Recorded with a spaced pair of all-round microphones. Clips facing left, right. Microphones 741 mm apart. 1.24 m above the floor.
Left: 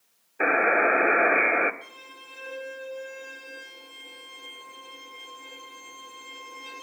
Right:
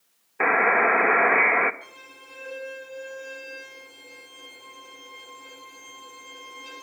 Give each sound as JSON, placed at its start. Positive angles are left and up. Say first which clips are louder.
{"t": 0.4, "sound": "a buzzer", "louder": "even", "side_deg": -35, "distance_m": 0.7}
{"t": 1.8, "sound": "a violin", "louder": "even", "side_deg": -20, "distance_m": 6.5}